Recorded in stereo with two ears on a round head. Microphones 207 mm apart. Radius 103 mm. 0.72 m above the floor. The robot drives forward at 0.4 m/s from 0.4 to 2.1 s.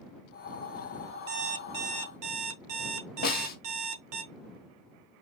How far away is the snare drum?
About 1.2 m.